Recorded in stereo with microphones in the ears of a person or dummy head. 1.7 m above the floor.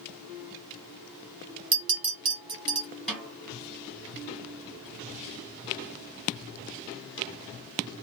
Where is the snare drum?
5° left (ahead or behind), 2 m.